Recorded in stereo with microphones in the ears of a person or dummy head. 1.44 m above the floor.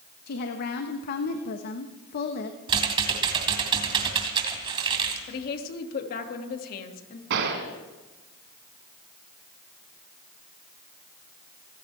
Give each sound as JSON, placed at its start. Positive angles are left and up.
{"t": 0.3, "sound": "a woman speaking", "side_deg": 55, "distance_m": 1.3}
{"t": 2.7, "sound": "typing on a keyboard", "side_deg": -30, "distance_m": 2.5}
{"t": 5.3, "sound": "a woman speaking", "side_deg": 55, "distance_m": 2.5}
{"t": 7.3, "sound": "a gunshot", "side_deg": -55, "distance_m": 2.5}